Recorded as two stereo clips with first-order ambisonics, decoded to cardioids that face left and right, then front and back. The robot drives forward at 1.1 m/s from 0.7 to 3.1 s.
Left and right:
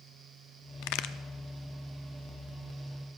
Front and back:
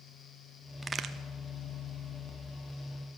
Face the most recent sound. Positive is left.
turn(degrees=165)